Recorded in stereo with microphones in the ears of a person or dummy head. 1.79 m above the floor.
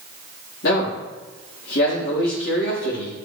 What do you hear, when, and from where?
0.6 s a man speaking: 60° left (ahead or behind), 4 m